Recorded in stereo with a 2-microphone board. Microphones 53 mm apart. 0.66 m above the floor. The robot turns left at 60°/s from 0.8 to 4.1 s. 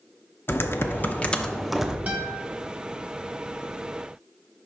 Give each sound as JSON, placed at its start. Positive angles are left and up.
{"t": 0.5, "sound": "typing on a keyboard", "azimuth_deg": 55, "distance_m": 0.5}
{"t": 2.1, "sound": "a guitar", "side_deg": -25, "distance_m": 1.3}